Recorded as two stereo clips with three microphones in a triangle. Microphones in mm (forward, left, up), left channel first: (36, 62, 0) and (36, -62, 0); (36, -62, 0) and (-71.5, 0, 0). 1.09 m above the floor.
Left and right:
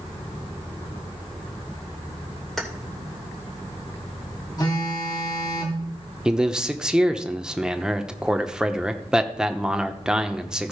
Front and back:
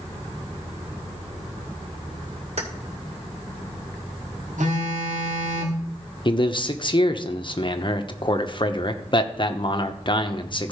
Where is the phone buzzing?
145° left, 2.5 m.